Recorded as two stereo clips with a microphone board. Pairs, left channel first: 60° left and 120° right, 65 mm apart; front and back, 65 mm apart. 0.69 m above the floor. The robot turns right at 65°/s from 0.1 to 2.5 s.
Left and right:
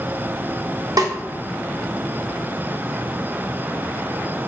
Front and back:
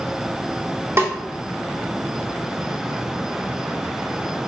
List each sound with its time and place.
1.0 s a snare drum: 135° right, 1.3 m; by 1.1 s 125° right, 1.3 m